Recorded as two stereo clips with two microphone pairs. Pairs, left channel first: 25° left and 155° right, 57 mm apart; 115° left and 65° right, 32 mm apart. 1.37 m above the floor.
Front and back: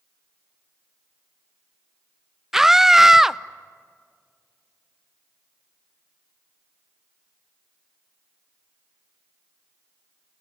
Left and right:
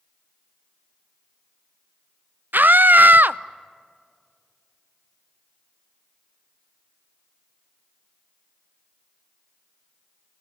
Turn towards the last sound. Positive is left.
turn(degrees=-70)